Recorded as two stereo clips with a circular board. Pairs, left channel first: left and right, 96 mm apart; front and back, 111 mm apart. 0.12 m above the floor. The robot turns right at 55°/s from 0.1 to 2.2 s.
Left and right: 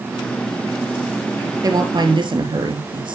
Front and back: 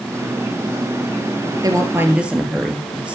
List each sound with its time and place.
1.6 s a woman speaking: 135° right, 2.5 m; by 3.1 s 100° right, 2.5 m